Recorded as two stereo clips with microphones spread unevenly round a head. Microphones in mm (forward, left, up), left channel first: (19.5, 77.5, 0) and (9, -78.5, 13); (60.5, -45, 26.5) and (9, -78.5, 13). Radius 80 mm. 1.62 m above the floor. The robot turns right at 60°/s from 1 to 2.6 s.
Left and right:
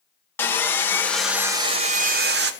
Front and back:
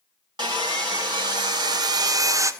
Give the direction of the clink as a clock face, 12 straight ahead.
I don't hear a clink.